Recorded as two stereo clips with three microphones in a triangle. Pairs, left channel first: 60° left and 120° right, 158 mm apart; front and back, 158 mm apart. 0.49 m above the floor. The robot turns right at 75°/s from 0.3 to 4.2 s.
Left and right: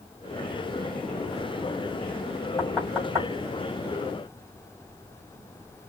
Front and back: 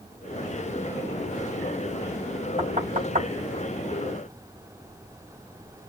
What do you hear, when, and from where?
2.6 s knocking: 130° left, 3 m; by 3.3 s straight behind, 3 m